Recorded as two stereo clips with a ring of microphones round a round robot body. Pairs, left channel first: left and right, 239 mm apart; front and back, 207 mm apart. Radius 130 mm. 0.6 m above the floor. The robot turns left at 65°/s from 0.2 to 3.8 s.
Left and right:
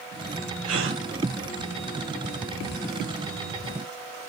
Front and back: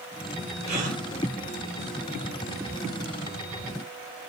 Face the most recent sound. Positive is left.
turn(degrees=40)